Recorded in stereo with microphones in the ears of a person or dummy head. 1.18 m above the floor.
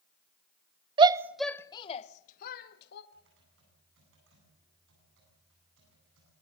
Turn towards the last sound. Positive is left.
turn(degrees=-65)  # may be behind; listen again after turning